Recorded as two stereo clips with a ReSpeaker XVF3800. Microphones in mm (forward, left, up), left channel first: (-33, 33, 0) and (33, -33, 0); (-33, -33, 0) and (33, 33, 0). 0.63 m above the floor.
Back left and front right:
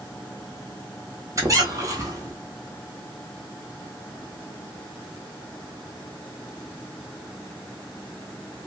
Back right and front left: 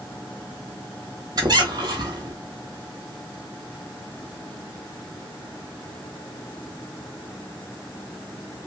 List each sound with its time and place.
1.4 s a squeak: 5° left, 1.3 m